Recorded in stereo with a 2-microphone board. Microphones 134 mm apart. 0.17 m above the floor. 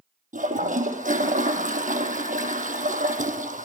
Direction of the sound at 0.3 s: 80° right.